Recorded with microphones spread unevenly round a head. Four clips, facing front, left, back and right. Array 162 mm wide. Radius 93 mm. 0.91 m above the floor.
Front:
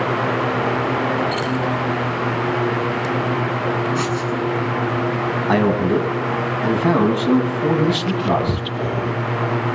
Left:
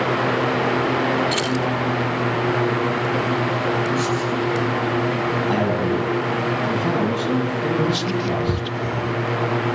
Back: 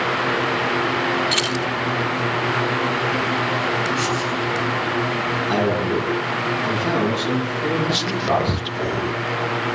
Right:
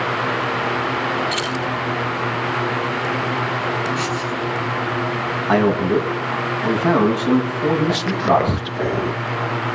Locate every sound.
1.3 s keys jangling: 165° left, 2.5 m
4.0 s writing: straight ahead, 8 m
5.5 s a man speaking: 55° right, 7.5 m
7.9 s whispering: 90° right, 0.5 m